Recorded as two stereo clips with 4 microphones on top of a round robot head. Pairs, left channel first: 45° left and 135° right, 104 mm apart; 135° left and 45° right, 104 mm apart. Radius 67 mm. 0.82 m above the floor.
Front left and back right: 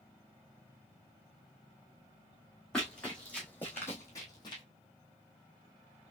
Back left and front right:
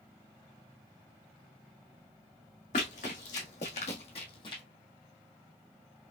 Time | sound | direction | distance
2.7 | running footsteps | 130° left | 2.5 m